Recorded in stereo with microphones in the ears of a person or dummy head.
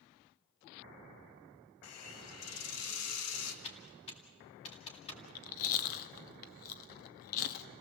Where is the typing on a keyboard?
30° left (ahead or behind), 2.5 m.